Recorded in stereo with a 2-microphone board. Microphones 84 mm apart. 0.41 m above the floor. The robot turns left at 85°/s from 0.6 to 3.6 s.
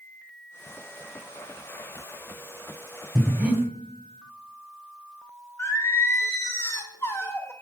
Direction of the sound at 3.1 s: 5° right (ahead or behind).